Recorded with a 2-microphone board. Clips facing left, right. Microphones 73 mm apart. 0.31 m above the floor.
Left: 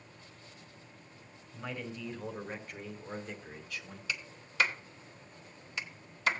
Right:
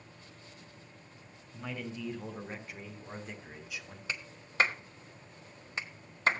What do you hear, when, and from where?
1.5 s a man speaking: 5° left (ahead or behind), 4 m; by 4.0 s 15° right (ahead or behind), 2 m
4.1 s a clap: 40° right (ahead or behind), 1.3 m